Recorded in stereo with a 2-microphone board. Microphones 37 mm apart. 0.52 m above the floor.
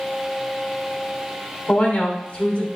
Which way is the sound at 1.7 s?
30° left (ahead or behind).